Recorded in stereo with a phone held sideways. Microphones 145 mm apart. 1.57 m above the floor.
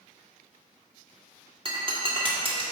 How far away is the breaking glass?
About 1.3 m.